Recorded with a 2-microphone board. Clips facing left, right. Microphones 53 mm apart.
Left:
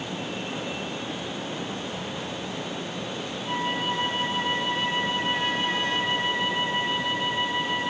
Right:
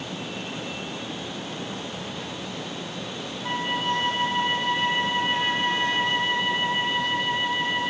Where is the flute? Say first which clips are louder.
Right 2 dB; 60° right (ahead or behind), 7.5 m.